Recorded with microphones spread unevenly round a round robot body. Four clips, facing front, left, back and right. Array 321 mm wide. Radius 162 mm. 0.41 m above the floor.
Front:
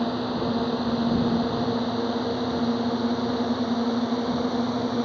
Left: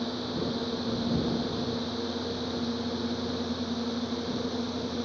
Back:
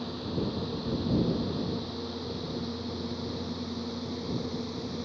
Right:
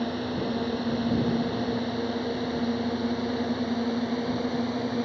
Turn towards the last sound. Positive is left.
turn(degrees=-15)